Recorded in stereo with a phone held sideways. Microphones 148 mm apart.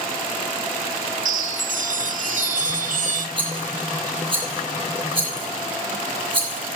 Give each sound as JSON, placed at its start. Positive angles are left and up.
{"t": 1.2, "sound": "a chime", "side_deg": -60, "distance_m": 1.4}
{"t": 3.4, "sound": "a rattle", "side_deg": -35, "distance_m": 6.5}